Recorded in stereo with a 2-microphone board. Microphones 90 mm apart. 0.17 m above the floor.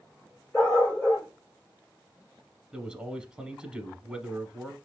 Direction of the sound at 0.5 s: 10° left (ahead or behind).